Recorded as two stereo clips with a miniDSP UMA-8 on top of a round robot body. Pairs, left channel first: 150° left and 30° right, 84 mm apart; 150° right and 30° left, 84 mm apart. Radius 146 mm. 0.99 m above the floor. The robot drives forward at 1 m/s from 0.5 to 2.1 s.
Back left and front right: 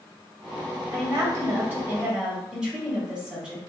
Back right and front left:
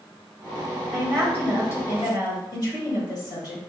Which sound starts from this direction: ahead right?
A woman speaking, at 0.9 s.